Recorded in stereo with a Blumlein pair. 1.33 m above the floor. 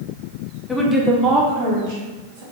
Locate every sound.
0.7 s a woman speaking: 15° left, 0.6 m; by 2.4 s 55° right, 1.1 m